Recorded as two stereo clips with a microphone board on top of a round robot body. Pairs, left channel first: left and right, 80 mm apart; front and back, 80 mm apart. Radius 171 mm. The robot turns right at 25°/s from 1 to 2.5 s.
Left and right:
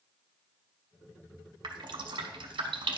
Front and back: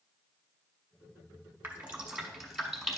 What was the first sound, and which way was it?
Dripping, 115° right.